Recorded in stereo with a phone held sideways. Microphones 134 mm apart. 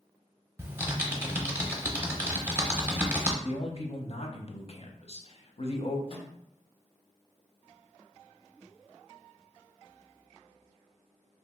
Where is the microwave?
45° left (ahead or behind), 1.1 m.